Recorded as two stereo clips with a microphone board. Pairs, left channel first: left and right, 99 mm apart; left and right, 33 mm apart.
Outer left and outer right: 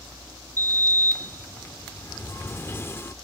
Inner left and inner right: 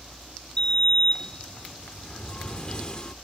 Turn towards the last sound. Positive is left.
turn(degrees=25)  # may be behind; listen again after turning